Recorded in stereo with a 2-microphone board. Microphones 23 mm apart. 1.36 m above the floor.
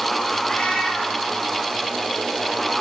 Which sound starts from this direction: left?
A cat meowing, at 0.4 s.